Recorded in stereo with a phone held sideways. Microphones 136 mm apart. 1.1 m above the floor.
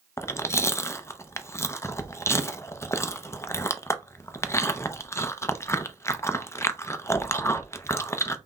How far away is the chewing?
About 0.5 m.